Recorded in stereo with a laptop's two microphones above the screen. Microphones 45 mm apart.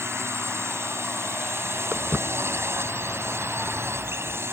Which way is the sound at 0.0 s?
65° right (ahead or behind).